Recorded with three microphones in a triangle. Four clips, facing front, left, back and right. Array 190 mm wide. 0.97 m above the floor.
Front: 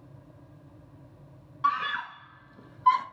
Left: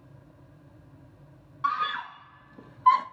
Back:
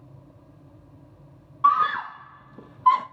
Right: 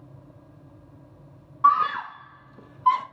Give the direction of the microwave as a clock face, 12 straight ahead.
No microwave in this recording.